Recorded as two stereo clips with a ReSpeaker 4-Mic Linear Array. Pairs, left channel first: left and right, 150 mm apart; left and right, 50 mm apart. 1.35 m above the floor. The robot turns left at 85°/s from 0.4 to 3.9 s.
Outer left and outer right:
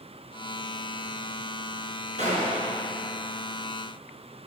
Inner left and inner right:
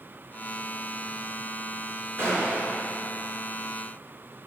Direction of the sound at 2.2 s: 60° right.